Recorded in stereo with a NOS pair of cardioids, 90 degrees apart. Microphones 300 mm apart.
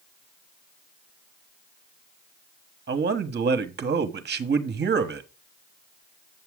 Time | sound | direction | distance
2.9 | a man speaking | 40° right | 1.2 m